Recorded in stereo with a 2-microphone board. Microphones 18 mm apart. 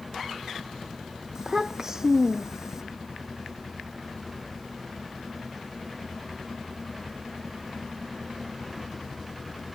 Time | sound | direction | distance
1.4 | a child speaking | 30° right (ahead or behind) | ?